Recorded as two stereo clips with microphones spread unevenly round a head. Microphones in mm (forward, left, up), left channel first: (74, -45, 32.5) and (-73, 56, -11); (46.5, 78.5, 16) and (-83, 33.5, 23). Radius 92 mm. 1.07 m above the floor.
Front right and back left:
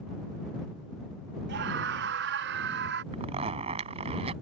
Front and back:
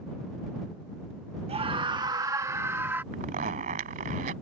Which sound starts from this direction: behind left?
A scream, at 1.5 s.